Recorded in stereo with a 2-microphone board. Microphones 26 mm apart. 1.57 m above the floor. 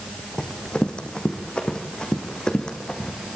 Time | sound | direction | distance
0.4 | running footsteps | 40° left (ahead or behind) | 4 m